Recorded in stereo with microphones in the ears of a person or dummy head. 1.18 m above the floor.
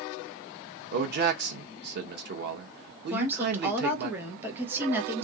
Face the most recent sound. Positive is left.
turn(degrees=-10)  # may be behind; listen again after turning